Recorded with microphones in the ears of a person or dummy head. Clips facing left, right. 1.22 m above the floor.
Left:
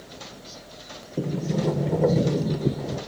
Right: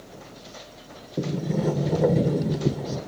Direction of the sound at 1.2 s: Centre (ahead or behind).